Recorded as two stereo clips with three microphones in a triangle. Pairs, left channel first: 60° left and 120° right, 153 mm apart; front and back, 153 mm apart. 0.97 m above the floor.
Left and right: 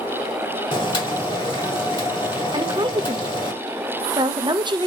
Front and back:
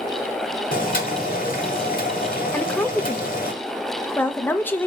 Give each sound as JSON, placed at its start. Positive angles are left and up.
{"t": 0.7, "sound": "boiling", "azimuth_deg": 10, "distance_m": 1.3}
{"t": 2.5, "sound": "a woman speaking", "azimuth_deg": -70, "distance_m": 0.6}